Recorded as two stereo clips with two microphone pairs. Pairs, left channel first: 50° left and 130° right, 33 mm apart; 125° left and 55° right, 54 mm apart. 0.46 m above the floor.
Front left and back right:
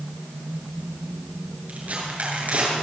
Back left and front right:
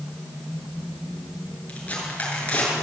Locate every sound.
1.7 s tearing paper: 170° right, 8.5 m